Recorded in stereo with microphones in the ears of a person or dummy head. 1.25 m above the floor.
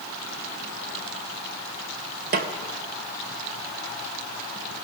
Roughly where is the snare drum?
Right.